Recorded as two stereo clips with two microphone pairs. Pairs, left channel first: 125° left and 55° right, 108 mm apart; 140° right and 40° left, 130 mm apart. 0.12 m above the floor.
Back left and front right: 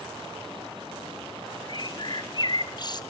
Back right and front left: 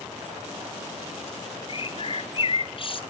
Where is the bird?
175° left, 0.7 m.